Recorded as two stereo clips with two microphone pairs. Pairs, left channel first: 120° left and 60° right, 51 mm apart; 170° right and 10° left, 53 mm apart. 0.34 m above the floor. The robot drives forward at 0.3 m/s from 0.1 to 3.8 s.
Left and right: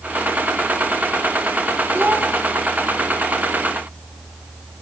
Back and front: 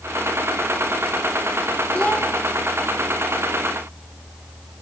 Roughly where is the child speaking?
Right.